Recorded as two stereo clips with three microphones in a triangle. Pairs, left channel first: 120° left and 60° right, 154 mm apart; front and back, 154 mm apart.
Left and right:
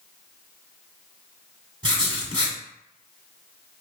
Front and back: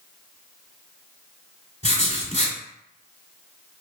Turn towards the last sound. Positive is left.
turn(degrees=-10)